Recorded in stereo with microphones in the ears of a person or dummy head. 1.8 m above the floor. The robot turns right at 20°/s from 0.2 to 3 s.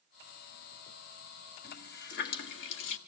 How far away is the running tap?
About 1.7 m.